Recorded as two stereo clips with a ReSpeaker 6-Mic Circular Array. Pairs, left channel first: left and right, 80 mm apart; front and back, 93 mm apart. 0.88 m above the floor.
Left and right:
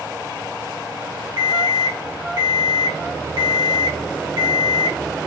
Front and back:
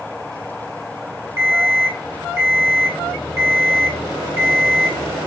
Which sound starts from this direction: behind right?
An alarm clock, at 1.4 s.